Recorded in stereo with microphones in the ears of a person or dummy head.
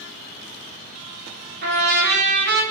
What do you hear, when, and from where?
1.6 s a trumpet: 50° right (ahead or behind), 0.8 m